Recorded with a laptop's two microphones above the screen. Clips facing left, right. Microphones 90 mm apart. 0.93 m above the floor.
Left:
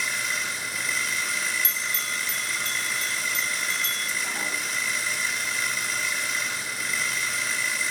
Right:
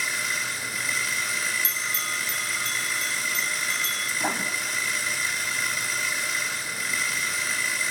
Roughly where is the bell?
Right.